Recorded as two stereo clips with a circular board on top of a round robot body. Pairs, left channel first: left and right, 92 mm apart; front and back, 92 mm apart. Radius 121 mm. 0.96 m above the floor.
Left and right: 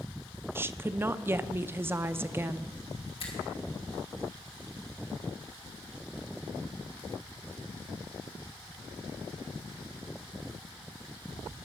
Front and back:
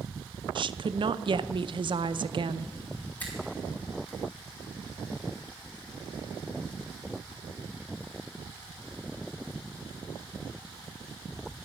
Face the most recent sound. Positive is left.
turn(degrees=70)